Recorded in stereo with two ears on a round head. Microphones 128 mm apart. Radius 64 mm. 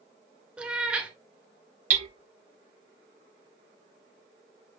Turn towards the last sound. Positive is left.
turn(degrees=-60)  # may be behind; listen again after turning